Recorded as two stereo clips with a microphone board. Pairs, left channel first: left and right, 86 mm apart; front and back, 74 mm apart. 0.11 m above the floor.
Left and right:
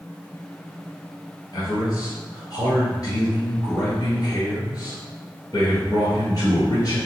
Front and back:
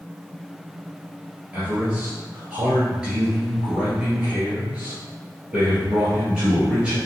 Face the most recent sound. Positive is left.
turn(degrees=105)